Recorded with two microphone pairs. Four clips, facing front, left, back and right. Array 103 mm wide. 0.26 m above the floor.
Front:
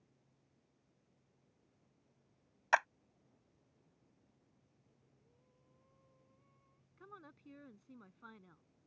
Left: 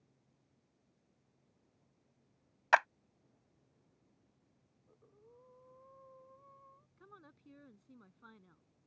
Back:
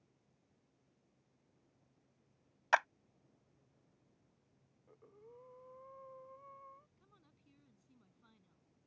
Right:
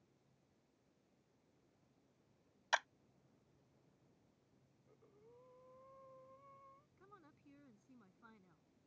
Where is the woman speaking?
15° left.